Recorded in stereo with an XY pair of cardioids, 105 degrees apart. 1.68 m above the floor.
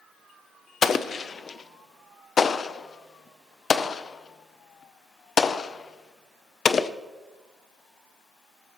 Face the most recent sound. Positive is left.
turn(degrees=40)